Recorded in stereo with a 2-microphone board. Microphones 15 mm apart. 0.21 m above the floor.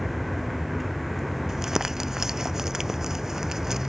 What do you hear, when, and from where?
0.0 s a vehicle: centre (ahead or behind)
1.5 s crumpling: 30° right (ahead or behind)